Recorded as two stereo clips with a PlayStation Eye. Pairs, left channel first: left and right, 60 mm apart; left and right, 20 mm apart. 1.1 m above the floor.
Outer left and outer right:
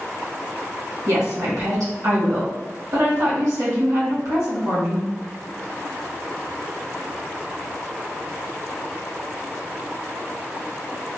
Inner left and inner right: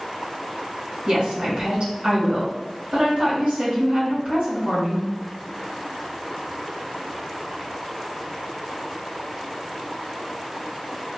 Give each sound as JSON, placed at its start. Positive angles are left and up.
{"t": 1.1, "sound": "a woman speaking", "side_deg": -75, "distance_m": 1.6}